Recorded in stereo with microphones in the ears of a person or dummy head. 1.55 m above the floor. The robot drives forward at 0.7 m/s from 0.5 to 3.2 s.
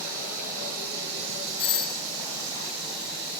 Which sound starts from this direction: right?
Running water, at 0.0 s.